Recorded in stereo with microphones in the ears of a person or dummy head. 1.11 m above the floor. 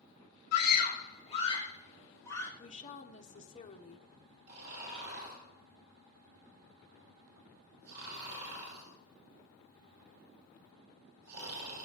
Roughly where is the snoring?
Right.